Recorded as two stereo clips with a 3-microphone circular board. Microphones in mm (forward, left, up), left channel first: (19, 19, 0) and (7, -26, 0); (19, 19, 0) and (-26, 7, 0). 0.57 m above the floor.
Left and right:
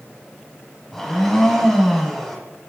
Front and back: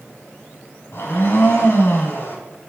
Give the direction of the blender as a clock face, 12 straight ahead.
12 o'clock.